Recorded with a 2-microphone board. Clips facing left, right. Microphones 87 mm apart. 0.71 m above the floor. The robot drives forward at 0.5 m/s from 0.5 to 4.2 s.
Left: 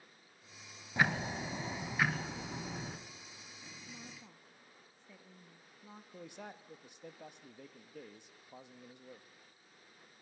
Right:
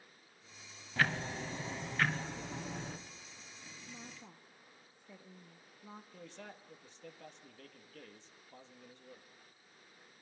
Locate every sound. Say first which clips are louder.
1.0 s ticking: left 2 dB; 15° left (ahead or behind), 0.7 m; by 3.0 s 5° left (ahead or behind), 1.6 m
3.9 s a woman speaking: right 3 dB; 10° right (ahead or behind), 0.8 m; by 6.0 s 15° right (ahead or behind), 0.7 m
6.1 s a man speaking: left 2 dB; 15° left (ahead or behind), 1.0 m